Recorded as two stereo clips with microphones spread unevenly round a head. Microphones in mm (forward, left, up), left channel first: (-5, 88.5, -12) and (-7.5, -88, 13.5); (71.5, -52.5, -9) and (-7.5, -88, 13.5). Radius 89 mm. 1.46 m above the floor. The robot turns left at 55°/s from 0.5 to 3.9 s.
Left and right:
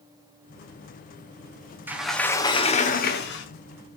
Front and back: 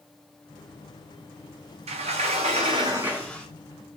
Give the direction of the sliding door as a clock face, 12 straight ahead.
6 o'clock.